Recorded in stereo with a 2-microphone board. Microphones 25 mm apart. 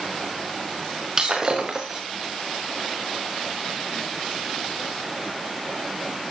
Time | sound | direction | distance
1.2 | breaking glass | 25° right (ahead or behind) | 4 m